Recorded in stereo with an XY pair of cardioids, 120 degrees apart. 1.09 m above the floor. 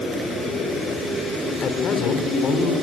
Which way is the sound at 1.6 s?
50° left.